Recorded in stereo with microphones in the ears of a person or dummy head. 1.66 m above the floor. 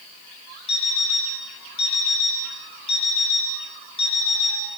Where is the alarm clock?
35° left (ahead or behind), 4.5 m.